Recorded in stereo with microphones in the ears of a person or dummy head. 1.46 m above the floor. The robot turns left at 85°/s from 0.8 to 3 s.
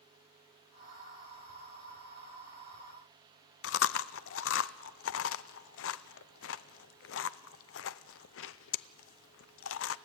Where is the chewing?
65° left (ahead or behind), 0.6 m.